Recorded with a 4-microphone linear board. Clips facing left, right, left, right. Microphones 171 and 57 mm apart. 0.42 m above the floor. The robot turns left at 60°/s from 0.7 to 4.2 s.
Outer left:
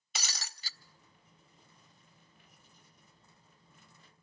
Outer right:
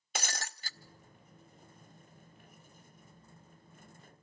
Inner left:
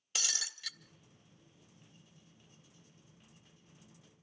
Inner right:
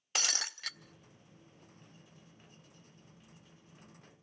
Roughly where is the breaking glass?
Right.